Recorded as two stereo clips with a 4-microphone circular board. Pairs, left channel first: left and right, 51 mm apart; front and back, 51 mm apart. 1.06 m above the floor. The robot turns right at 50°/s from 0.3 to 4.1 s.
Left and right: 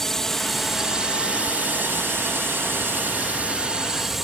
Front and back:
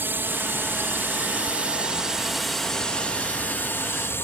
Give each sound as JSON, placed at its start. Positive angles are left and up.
{"t": 0.0, "sound": "a drone", "azimuth_deg": 170}